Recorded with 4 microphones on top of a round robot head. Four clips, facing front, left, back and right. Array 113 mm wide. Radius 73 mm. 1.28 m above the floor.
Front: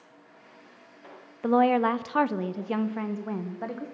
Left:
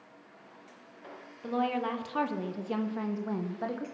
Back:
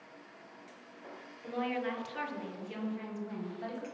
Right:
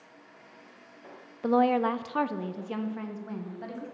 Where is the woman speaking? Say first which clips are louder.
Right 7 dB, front 14 dB; 35° right, 0.8 m; by 3.9 s 45° left, 1.4 m.